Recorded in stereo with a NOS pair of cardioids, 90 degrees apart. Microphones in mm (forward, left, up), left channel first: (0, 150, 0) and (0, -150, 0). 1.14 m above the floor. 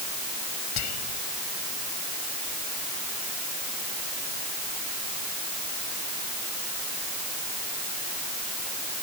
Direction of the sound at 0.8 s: 70° left.